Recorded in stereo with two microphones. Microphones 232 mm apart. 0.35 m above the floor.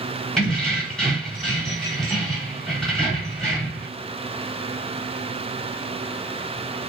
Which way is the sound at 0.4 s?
5° left (ahead or behind).